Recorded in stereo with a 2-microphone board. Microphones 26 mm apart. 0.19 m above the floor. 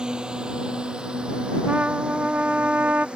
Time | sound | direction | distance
0.0 | a drone | 30° right (ahead or behind) | ?
1.7 | a trumpet | 75° right (ahead or behind) | ?